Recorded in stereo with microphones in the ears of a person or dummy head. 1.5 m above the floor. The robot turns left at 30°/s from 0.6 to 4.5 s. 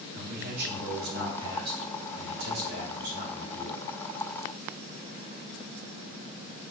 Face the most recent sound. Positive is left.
turn(degrees=-170)